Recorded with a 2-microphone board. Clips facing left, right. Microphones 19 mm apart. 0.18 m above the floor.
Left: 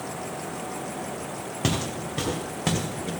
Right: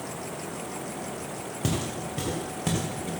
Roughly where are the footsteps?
Left.